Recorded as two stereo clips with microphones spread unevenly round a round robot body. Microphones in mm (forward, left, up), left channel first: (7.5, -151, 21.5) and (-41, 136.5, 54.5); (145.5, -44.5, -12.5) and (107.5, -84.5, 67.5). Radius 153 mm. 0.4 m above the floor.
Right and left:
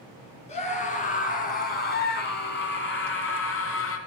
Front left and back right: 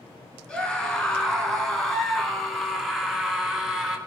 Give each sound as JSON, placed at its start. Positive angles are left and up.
{"t": 0.5, "sound": "a scream", "azimuth_deg": -10, "distance_m": 4.5}